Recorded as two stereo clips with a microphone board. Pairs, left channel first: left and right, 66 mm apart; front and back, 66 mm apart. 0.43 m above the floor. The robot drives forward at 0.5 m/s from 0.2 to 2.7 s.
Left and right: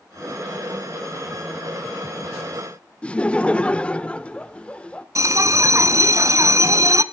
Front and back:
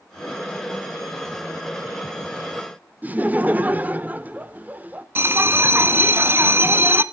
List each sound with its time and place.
3.0 s laughter: 145° left, 0.8 m
5.2 s a bell: 125° right, 0.8 m